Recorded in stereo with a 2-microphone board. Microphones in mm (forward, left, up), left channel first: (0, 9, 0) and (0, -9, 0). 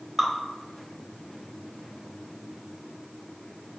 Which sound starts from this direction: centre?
Dripping, at 0.2 s.